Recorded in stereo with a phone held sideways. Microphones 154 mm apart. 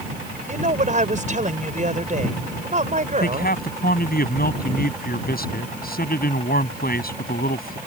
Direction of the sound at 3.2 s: 75° left (ahead or behind).